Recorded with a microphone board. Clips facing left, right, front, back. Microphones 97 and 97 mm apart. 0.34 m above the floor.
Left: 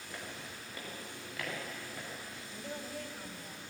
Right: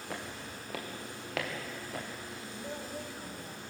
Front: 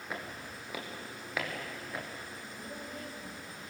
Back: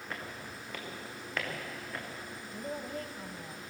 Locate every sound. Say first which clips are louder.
0.1 s footsteps: right 4 dB, front 1 dB; 80° right, 5 m; by 2.1 s 85° right, 6 m
2.5 s a woman speaking: right 1 dB, back 7 dB; 170° right, 2 m